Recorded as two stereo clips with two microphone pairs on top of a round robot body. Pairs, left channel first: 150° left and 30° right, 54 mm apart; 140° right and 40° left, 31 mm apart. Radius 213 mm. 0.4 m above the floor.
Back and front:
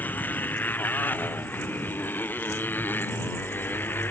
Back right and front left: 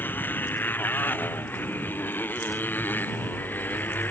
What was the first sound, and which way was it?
A motorcycle, 155° right.